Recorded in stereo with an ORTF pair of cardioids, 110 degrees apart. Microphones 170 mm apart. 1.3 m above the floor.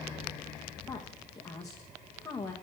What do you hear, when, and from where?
0.9 s a woman speaking: 20° left, 1.8 m